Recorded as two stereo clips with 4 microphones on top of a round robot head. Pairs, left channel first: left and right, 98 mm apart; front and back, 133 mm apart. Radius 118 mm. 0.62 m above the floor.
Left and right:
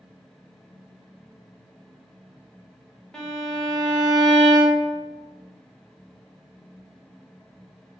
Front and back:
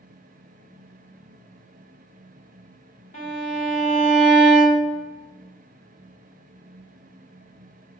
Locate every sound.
3.1 s a violin: 5° left, 1.0 m